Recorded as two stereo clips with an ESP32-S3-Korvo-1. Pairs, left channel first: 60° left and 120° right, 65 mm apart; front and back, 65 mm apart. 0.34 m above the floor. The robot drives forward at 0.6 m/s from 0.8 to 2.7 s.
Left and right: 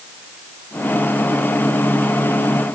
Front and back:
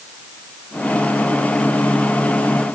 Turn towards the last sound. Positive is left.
No sound to turn to.